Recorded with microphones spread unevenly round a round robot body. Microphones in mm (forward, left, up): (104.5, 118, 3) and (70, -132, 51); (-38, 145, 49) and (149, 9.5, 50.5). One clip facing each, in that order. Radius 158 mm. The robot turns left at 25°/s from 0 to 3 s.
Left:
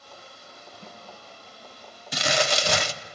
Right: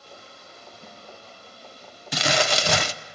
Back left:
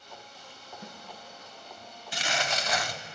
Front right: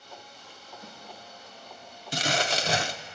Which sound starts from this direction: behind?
A snare drum, at 0.8 s.